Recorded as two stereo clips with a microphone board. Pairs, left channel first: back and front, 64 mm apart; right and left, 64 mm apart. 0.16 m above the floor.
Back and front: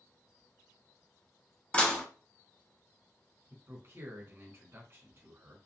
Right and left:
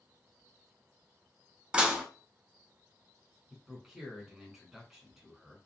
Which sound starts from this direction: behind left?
Dishes clattering, at 1.7 s.